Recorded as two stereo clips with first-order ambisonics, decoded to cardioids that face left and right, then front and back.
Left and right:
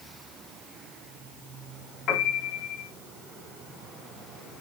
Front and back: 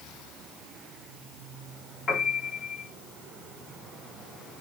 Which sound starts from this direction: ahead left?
A piano, at 2.1 s.